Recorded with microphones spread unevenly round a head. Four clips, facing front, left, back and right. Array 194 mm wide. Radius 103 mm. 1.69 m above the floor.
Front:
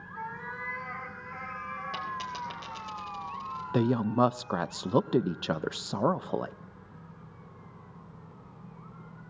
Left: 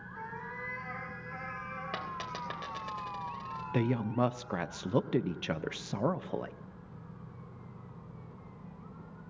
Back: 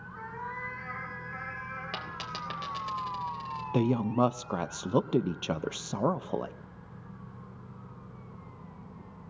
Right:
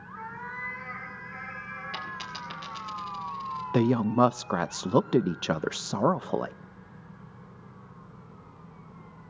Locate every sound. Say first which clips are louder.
0.1 s a cat meowing: right 3 dB, front 1 dB; 60° left, 5.5 m
1.9 s a dropped coin: even, front 3 dB; 105° left, 3.5 m
3.7 s a woman speaking: right 8 dB, front 1 dB; 95° right, 0.5 m